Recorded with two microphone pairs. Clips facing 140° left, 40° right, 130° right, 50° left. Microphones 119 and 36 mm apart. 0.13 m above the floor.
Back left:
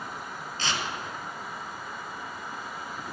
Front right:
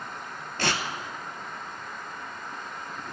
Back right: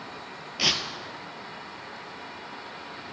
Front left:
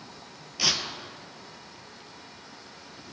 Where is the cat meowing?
I don't hear a cat meowing.